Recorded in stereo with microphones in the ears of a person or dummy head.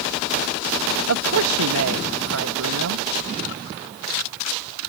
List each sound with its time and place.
1.1 s a man speaking: 85° right